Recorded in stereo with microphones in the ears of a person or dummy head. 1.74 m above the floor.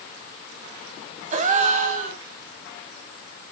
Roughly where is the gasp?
Right.